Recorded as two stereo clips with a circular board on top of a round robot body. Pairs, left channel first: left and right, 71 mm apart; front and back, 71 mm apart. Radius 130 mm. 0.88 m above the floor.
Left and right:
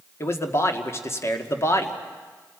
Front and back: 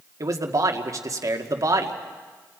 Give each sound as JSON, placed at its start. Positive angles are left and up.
{"t": 0.2, "sound": "a man speaking", "azimuth_deg": 140, "distance_m": 1.9}